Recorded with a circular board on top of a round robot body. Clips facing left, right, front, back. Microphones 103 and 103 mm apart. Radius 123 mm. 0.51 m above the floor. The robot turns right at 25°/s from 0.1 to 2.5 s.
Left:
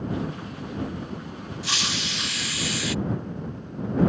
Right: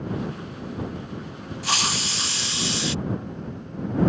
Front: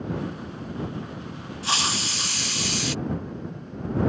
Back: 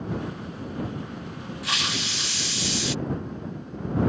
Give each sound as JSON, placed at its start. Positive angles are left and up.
{"t": 1.6, "sound": "a hiss", "azimuth_deg": -55}